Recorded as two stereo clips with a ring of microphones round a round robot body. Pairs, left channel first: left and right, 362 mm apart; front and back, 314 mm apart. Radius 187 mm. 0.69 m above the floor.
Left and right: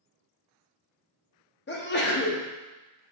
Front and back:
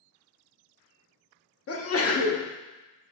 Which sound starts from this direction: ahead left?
A sneeze, at 1.7 s.